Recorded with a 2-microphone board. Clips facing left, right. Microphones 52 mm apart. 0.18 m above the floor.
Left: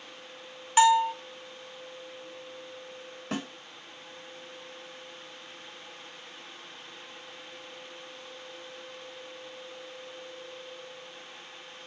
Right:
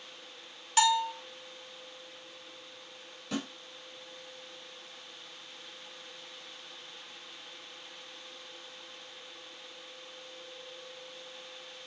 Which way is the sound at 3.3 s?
40° left (ahead or behind).